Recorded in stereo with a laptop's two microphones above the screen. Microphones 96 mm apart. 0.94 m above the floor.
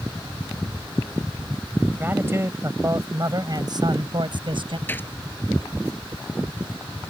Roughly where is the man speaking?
Right.